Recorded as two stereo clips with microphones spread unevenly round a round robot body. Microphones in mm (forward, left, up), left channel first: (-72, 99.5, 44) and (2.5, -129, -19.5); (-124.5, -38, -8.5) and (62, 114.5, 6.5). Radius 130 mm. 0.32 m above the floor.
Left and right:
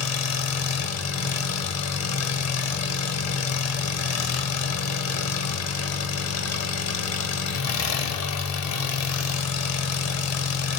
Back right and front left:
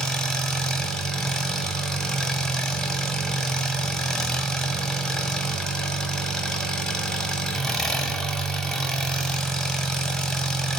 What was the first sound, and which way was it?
An engine running, 135° left.